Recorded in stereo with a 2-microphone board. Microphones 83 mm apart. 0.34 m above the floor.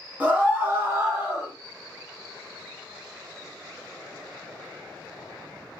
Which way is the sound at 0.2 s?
20° right (ahead or behind).